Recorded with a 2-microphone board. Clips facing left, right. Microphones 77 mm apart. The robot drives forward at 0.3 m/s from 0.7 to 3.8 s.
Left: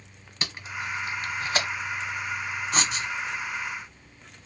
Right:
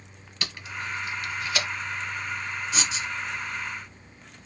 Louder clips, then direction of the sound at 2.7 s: Left 4 dB; 45° left (ahead or behind).